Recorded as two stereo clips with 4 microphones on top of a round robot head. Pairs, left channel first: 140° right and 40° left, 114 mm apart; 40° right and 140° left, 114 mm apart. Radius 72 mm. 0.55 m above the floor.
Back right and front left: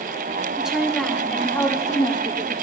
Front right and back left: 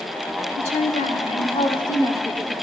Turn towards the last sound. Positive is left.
turn(degrees=-120)